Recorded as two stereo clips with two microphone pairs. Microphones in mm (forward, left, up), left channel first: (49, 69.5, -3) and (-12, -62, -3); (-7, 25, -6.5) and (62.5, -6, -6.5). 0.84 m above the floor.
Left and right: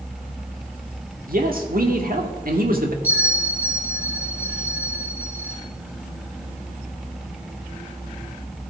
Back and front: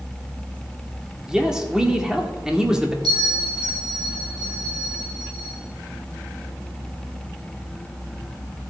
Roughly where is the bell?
Ahead right.